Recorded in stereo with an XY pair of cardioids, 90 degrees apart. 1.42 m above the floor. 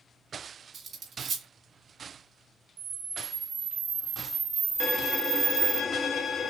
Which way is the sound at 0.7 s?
60° right.